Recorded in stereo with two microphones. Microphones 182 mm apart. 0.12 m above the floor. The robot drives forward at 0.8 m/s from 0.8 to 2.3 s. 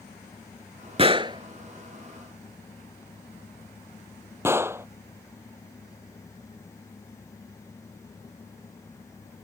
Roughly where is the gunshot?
Right.